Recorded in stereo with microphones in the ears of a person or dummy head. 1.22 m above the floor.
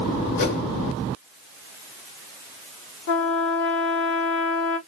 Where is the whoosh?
70° left (ahead or behind), 2.5 m.